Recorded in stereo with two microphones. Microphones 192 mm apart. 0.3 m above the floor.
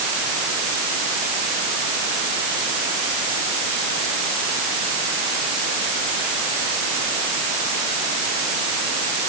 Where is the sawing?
I don't hear sawing.